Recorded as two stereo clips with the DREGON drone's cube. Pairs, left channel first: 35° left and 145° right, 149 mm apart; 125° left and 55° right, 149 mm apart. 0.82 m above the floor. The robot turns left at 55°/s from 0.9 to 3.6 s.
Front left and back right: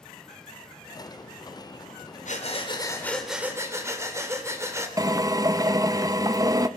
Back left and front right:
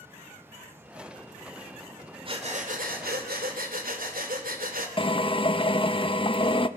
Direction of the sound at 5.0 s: 160° left.